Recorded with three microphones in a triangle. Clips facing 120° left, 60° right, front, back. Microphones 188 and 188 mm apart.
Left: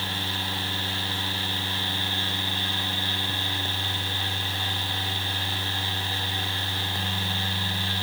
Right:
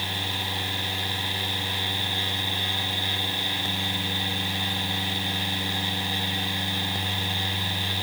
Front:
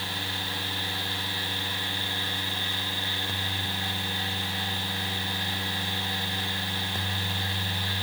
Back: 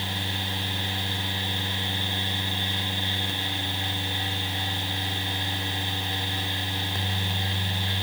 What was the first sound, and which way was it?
Only background noise.